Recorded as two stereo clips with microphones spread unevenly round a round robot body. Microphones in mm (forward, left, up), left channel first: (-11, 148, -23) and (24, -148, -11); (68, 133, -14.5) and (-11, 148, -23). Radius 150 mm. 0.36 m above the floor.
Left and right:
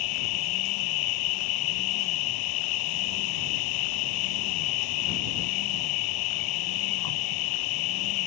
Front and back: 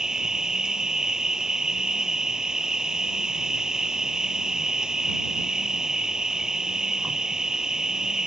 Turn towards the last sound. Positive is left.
turn(degrees=85)